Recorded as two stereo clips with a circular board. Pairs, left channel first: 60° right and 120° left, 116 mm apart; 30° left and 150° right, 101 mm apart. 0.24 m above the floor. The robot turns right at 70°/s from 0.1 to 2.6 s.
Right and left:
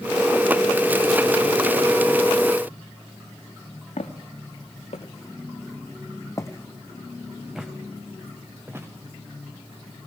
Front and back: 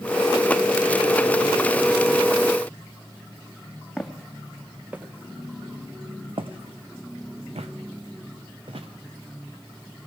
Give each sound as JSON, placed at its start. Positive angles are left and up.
{"t": 4.0, "sound": "footsteps", "azimuth_deg": -55, "distance_m": 1.4}